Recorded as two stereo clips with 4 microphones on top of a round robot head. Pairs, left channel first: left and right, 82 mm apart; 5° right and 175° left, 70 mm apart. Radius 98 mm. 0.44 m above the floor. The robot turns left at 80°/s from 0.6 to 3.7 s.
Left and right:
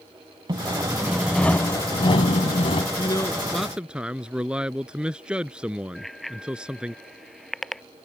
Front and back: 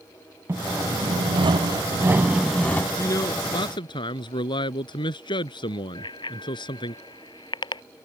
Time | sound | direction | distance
0.5 | sawing | 125° right | ?
3.0 | a man speaking | 50° left | ?
6.0 | a bicycle bell | straight ahead | ?